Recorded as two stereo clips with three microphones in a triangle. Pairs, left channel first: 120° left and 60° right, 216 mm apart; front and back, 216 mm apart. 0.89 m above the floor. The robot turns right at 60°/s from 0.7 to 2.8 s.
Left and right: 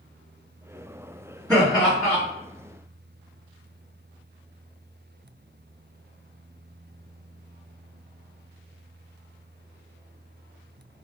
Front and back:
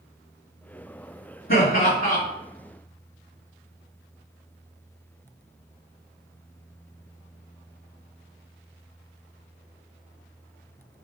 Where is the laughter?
10° left, 1.4 m; by 2.2 s 55° left, 1.4 m.